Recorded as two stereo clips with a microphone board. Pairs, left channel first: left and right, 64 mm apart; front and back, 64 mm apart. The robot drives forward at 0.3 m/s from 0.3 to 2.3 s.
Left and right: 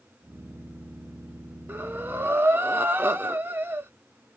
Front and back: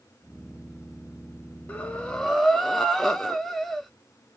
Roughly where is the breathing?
Ahead right.